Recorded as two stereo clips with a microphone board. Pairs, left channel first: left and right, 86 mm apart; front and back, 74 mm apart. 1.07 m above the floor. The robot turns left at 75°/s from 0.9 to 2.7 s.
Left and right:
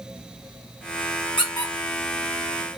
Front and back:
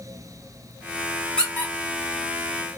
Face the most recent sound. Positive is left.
turn(degrees=-20)